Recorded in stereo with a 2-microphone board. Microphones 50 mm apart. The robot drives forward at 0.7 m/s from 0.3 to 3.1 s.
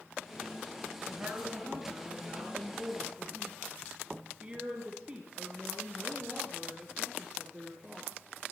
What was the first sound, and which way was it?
A woman speaking, 15° right (ahead or behind).